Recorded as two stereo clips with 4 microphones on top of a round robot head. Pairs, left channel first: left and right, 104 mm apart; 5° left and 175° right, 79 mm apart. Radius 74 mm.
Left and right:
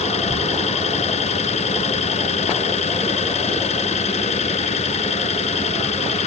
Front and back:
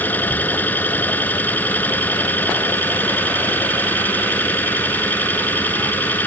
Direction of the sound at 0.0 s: 75° left.